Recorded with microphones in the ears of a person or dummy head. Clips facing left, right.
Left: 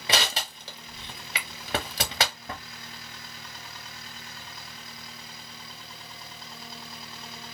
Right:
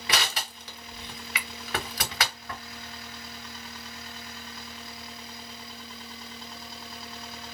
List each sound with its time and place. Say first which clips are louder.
0.1 s crushing: left 3 dB; 25° left (ahead or behind), 0.6 m